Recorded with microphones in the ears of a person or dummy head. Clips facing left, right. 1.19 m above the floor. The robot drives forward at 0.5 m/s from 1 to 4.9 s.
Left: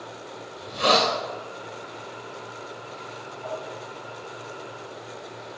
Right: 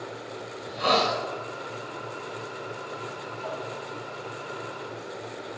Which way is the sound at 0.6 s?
60° left (ahead or behind).